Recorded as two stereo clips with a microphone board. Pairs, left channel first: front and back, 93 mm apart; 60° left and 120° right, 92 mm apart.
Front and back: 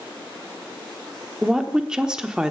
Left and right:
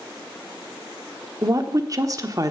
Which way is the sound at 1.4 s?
100° right.